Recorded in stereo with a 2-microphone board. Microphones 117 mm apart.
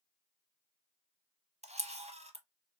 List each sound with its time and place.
1.6 s a camera shutter: 85° right, 0.9 m